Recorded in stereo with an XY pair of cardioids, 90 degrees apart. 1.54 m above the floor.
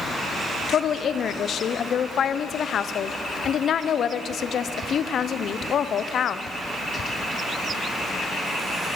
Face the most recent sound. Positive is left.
turn(degrees=60)